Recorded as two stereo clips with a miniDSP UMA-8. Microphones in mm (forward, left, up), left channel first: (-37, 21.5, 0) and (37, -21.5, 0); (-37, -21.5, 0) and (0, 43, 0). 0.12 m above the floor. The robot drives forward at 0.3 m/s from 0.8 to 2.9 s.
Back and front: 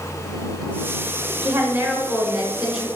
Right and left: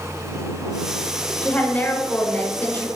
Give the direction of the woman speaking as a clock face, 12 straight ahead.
2 o'clock.